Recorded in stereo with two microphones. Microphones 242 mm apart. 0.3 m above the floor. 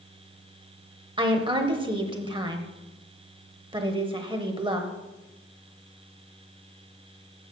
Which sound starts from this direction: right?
A woman speaking, at 1.2 s.